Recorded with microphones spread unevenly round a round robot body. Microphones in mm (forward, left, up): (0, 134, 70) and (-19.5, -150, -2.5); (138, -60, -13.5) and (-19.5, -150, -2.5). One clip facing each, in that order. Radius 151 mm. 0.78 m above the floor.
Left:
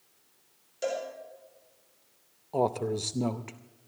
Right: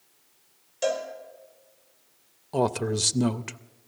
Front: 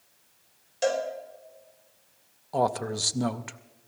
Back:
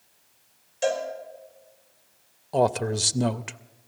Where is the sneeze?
I don't hear a sneeze.